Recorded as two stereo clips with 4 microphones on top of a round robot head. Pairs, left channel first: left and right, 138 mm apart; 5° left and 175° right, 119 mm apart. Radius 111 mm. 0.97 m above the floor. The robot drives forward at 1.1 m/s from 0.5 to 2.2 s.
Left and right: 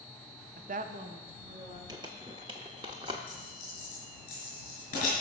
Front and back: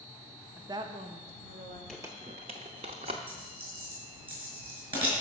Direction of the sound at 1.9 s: 75° right.